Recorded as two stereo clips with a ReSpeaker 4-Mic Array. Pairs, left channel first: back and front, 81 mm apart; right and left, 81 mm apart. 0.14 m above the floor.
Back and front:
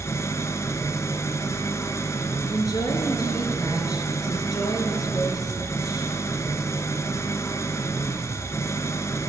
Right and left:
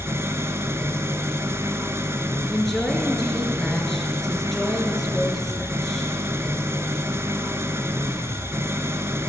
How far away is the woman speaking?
About 2 m.